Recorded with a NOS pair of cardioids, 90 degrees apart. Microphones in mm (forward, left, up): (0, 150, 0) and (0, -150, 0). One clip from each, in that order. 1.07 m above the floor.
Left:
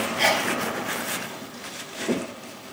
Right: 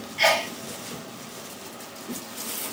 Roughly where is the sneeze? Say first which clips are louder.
Right 1 dB; ahead.